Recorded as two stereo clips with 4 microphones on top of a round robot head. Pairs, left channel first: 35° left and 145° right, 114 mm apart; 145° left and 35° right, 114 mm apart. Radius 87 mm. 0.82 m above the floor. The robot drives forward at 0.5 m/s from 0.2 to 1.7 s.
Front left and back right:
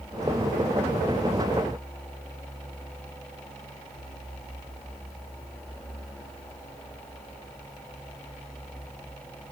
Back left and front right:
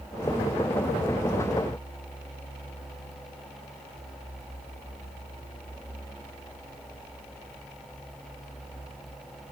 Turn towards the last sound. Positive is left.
No sound to turn to.